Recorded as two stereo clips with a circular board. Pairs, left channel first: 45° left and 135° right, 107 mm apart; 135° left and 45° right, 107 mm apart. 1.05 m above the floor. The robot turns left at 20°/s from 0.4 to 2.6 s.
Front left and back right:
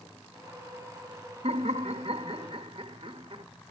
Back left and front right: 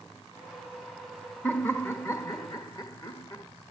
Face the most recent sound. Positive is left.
turn(degrees=-175)